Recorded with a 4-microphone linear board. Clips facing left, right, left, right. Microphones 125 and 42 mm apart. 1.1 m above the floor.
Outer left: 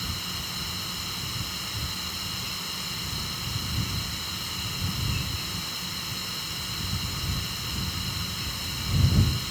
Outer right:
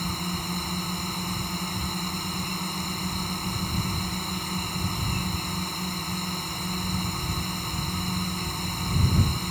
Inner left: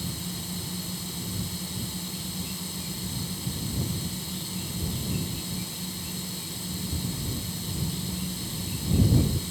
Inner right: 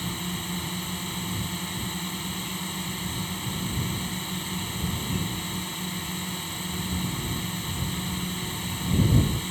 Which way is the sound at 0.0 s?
50° right (ahead or behind).